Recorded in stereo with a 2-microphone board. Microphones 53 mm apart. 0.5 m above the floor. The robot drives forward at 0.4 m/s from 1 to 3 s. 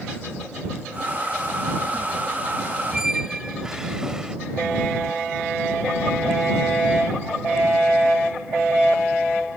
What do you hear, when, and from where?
2.9 s a squeak: 15° right (ahead or behind)